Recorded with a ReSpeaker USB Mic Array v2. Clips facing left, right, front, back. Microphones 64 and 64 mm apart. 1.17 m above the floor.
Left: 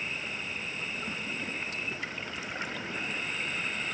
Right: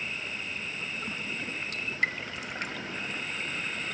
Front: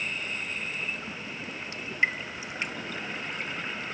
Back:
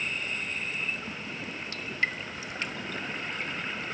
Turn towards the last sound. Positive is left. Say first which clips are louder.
# right 5 dB, front 3 dB
turn(degrees=-70)